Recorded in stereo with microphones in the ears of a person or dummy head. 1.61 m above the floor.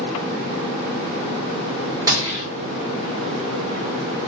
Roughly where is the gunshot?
Right.